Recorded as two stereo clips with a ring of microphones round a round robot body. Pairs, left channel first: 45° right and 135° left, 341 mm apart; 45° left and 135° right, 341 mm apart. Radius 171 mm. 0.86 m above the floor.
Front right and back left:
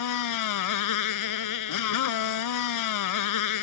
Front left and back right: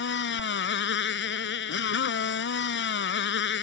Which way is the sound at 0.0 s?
10° right.